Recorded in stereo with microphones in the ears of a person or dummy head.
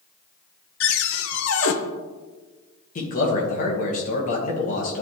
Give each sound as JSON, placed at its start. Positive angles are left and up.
{"t": 0.8, "sound": "a cupboard door", "side_deg": 75, "distance_m": 0.7}
{"t": 3.0, "sound": "a man speaking", "side_deg": 45, "distance_m": 1.4}